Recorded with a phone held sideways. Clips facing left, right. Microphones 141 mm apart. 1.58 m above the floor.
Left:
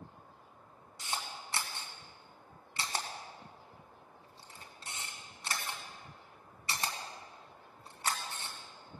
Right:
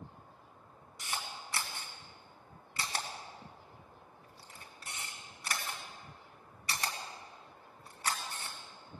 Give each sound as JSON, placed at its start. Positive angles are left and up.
{"t": 1.0, "sound": "a camera shutter", "side_deg": 25, "distance_m": 2.0}